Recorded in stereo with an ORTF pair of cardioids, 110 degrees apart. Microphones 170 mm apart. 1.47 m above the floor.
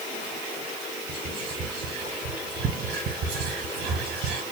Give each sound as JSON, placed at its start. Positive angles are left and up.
{"t": 1.1, "sound": "whispering", "azimuth_deg": -65, "distance_m": 2.0}